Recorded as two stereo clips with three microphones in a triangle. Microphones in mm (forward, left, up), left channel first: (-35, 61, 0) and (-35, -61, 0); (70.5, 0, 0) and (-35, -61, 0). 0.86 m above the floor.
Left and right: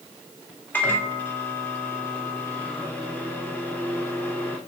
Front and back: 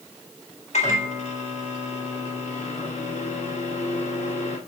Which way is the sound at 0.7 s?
15° left.